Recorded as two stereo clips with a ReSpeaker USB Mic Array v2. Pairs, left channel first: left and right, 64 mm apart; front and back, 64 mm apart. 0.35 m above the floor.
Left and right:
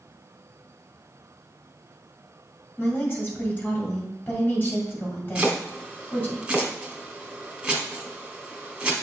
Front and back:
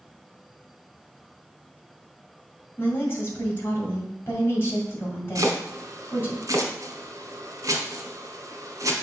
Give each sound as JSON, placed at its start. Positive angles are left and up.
{"t": 2.8, "sound": "a woman speaking", "azimuth_deg": 45, "distance_m": 2.5}
{"t": 5.3, "sound": "chopping", "azimuth_deg": -165, "distance_m": 1.3}